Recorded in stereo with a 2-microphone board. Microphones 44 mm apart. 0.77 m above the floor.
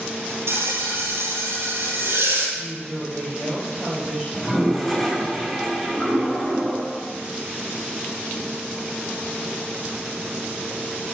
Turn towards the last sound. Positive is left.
turn(degrees=-5)  # may be behind; listen again after turning